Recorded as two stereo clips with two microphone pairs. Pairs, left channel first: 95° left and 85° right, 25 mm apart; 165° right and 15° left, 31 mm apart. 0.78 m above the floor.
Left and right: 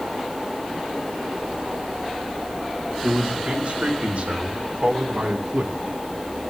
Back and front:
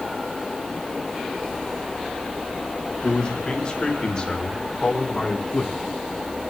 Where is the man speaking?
105° right, 3.5 m; by 5.7 s 95° right, 1.8 m.